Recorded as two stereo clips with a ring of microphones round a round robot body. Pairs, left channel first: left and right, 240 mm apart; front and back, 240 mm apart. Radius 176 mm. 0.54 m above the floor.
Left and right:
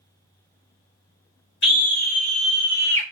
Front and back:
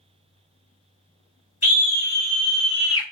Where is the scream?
55° left, 3 m; by 3.0 s 5° left, 2.5 m.